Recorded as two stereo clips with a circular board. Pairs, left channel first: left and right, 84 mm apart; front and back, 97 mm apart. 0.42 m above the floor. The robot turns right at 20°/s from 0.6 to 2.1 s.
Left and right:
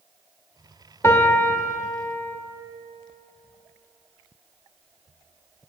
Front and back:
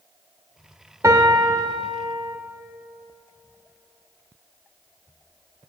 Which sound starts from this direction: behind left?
A piano, at 1.0 s.